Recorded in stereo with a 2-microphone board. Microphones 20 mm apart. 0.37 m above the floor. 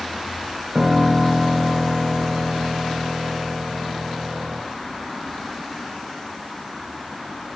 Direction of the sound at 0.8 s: 50° right (ahead or behind).